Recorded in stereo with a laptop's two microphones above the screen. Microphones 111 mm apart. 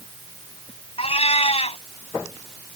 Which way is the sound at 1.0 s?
65° left (ahead or behind).